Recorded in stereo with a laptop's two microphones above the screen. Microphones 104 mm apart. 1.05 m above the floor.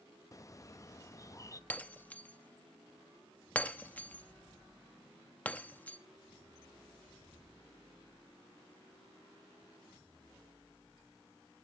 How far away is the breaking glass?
About 0.7 m.